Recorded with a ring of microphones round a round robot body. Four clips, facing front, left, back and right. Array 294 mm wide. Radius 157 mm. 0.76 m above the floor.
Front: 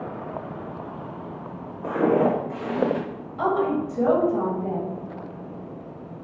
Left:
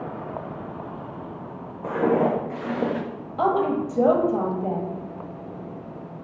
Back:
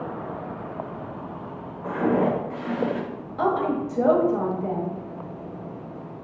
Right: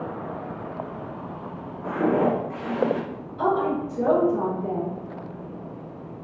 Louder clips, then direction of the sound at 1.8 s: Left 1 dB, front 2 dB; 40° left.